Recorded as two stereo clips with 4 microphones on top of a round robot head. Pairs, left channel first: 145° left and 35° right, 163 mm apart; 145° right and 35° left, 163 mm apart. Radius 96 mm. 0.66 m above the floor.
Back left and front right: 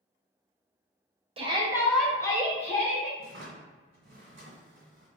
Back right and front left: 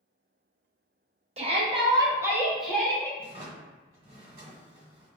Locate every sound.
1.4 s a shout: 5° left, 0.9 m; by 3.1 s 135° left, 1.1 m
3.2 s a drawer: 20° right, 1.1 m